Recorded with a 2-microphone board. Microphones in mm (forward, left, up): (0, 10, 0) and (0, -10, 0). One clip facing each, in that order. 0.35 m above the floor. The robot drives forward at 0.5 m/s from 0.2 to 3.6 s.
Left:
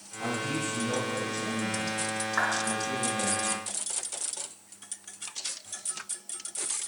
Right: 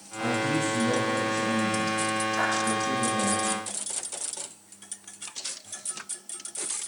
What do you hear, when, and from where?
0.2 s a man speaking: 45° right (ahead or behind), 2 m; by 3.4 s 60° right (ahead or behind), 1.8 m
2.4 s a clap: 40° left (ahead or behind), 2.5 m